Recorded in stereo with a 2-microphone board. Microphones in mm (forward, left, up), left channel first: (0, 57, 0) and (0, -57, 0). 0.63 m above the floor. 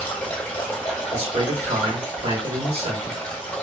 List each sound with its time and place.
0.0 s running water: 15° left (ahead or behind), 1.0 m
1.1 s a man speaking: 55° right (ahead or behind), 1.8 m